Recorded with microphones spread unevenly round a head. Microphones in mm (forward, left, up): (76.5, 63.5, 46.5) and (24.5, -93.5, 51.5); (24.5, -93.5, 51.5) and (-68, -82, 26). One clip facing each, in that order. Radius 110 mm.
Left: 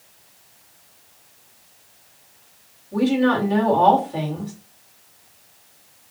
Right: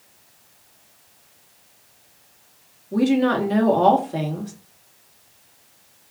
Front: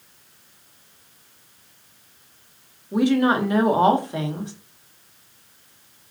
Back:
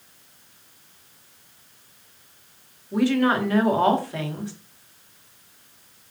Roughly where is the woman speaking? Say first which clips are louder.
Even, front 2 dB; right.